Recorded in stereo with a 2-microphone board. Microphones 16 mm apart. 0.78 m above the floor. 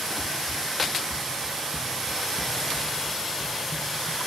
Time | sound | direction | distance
0.2 | running footsteps | 45° right (ahead or behind) | 7.5 m